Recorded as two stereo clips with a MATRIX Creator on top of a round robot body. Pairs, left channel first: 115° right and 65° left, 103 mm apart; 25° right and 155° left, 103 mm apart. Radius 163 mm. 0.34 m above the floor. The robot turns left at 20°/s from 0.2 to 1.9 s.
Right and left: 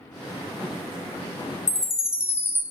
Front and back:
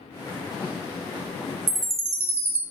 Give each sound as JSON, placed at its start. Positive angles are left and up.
{"t": 1.7, "sound": "a chime", "azimuth_deg": -175, "distance_m": 0.6}